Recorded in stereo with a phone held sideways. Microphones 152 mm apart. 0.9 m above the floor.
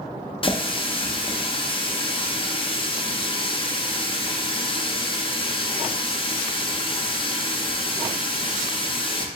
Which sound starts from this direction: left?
A running tap, at 0.4 s.